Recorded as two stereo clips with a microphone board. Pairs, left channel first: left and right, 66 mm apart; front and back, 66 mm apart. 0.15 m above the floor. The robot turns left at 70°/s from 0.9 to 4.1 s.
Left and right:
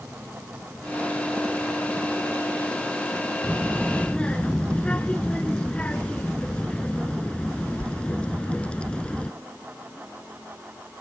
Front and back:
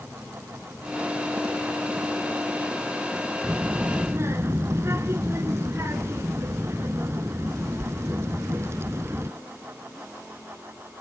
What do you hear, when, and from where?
3.4 s a child speaking: 155° right, 1.1 m; by 9.3 s 155° left, 1.1 m